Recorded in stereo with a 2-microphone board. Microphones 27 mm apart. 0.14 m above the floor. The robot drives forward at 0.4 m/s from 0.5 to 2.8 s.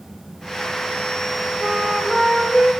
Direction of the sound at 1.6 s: Centre (ahead or behind).